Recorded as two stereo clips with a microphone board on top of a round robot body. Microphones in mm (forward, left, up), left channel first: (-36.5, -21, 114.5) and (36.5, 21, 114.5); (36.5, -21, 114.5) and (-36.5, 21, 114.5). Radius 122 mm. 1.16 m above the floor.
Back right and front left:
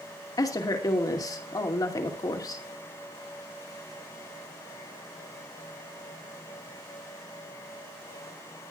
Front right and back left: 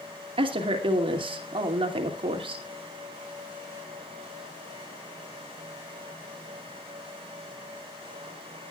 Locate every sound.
0.4 s a woman speaking: 165° left, 2.5 m